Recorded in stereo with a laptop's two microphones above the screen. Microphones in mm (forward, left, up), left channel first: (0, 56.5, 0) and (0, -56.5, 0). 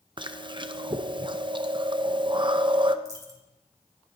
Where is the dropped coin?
30° right (ahead or behind), 2 m.